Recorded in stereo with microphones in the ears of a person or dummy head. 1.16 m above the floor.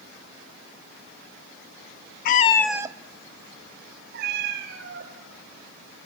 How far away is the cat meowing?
About 0.8 m.